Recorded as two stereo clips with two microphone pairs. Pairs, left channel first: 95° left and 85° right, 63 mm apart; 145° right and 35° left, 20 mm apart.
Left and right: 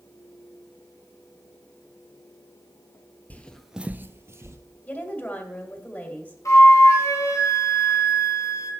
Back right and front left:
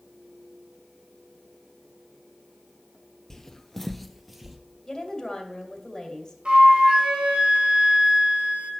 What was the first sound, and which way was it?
Footsteps, 150° left.